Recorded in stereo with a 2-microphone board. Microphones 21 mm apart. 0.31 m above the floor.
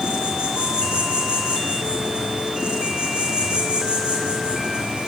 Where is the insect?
50° right (ahead or behind), 3.5 m.